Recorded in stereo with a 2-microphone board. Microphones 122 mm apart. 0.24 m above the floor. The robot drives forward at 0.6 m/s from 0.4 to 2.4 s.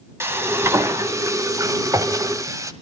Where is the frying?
20° right (ahead or behind), 1.4 m; by 2.7 s 25° right (ahead or behind), 1.1 m.